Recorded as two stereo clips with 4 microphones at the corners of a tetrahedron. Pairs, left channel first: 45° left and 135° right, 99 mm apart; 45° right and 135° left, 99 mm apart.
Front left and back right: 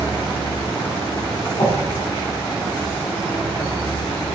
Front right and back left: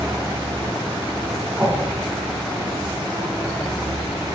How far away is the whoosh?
About 1.0 m.